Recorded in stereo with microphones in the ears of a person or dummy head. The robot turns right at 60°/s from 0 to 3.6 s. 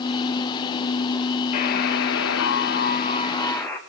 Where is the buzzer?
45° left, 1.7 m; by 3.8 s 170° left, 1.7 m.